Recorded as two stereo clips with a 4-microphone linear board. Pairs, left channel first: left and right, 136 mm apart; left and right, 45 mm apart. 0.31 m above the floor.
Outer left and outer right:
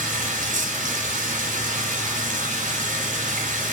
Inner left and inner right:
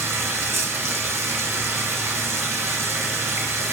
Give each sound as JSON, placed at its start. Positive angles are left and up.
{"t": 0.0, "sound": "running water", "side_deg": -75, "distance_m": 2.5}